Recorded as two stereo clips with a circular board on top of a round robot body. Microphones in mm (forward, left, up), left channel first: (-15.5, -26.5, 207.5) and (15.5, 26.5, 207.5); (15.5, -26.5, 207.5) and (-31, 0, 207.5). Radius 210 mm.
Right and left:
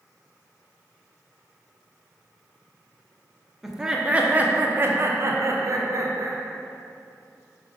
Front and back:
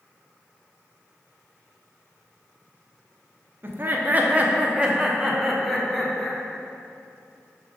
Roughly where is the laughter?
Behind left.